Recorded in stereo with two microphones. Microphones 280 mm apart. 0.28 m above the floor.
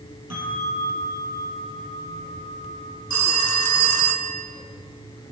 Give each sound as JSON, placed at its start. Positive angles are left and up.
{"t": 0.3, "sound": "a bell", "side_deg": 55, "distance_m": 7.5}
{"t": 3.1, "sound": "a phone ringing", "side_deg": 70, "distance_m": 1.8}